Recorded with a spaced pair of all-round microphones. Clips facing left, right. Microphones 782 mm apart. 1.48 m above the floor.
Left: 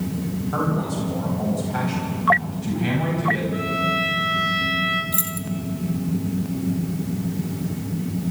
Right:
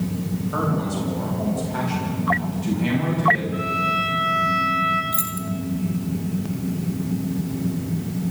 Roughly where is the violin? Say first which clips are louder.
Left 2 dB; left.